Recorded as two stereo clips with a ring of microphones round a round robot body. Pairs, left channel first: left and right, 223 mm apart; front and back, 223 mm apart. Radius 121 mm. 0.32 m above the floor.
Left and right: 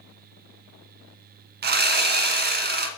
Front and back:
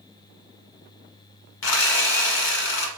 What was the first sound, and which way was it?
Sawing, 45° right.